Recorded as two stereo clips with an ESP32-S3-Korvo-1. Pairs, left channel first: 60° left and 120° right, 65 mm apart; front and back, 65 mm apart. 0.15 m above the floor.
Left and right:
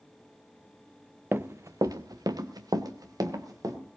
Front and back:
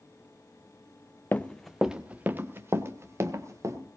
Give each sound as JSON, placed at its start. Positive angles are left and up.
{"t": 1.3, "sound": "running footsteps", "azimuth_deg": -65, "distance_m": 0.8}